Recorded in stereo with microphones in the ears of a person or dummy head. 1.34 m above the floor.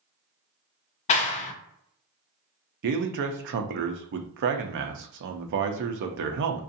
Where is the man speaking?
55° right (ahead or behind), 0.5 m.